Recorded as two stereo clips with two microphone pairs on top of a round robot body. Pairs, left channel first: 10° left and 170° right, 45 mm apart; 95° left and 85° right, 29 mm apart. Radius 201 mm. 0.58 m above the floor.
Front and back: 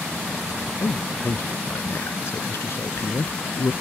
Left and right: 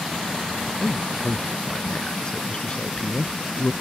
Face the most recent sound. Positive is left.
turn(degrees=45)